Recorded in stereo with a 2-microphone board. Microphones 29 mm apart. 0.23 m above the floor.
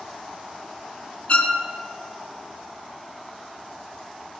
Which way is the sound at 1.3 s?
45° left (ahead or behind).